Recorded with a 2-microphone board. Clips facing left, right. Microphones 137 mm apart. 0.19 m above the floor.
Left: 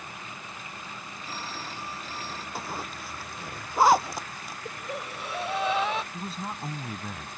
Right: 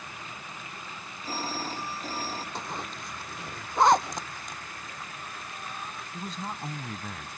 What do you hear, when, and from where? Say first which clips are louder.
1.2 s a phone ringing: right 6 dB; 35° right (ahead or behind)
2.5 s a zipper: left 1 dB; 5° left (ahead or behind)
4.7 s breathing: left 7 dB; 70° left (ahead or behind)
6.1 s a man speaking: left 1 dB; 5° left (ahead or behind)